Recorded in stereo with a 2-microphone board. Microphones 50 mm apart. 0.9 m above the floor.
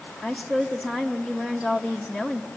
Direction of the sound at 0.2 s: 10° right (ahead or behind).